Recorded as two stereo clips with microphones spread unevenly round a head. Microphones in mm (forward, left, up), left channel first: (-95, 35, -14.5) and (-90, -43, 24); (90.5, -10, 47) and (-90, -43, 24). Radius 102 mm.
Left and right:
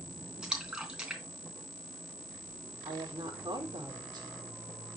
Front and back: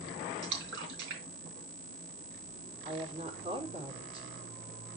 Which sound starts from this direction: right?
A woman speaking, at 2.9 s.